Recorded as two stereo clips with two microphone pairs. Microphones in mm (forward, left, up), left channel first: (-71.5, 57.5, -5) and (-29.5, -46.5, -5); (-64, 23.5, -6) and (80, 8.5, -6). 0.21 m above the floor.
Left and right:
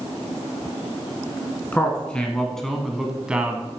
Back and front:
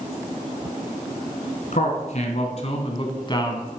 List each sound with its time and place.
1.7 s a man speaking: 175° right, 1.9 m; by 3.7 s 135° right, 1.2 m